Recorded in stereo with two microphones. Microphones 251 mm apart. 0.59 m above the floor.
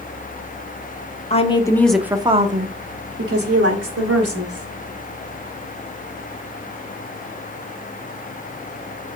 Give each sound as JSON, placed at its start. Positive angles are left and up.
{"t": 1.3, "sound": "a woman speaking", "side_deg": 25, "distance_m": 1.0}